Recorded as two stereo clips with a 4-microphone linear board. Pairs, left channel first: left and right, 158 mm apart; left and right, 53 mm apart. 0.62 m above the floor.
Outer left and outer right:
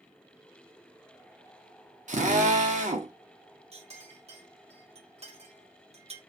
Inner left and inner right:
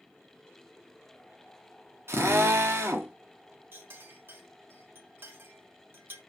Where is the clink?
40° right (ahead or behind), 0.8 m.